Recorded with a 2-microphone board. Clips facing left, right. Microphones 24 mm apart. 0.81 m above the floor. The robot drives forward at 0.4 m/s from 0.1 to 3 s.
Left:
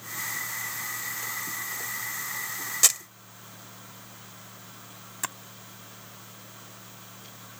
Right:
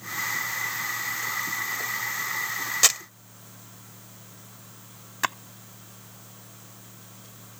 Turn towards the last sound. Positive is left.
turn(degrees=-35)  # may be behind; listen again after turning